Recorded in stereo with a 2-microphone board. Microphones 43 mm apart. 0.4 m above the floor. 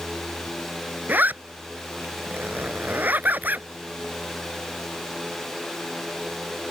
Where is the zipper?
45° right (ahead or behind).